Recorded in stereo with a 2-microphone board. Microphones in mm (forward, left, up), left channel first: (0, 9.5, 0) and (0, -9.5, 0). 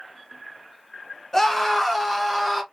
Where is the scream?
20° left (ahead or behind), 1.1 m; by 2.6 s 5° left (ahead or behind), 1.3 m.